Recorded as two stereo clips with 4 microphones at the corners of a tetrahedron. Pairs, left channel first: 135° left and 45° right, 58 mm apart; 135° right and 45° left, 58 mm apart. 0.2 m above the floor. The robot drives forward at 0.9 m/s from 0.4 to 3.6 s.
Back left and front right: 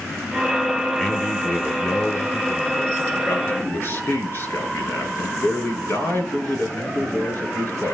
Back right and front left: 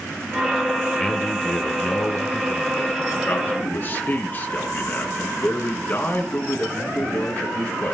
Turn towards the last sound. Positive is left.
turn(degrees=180)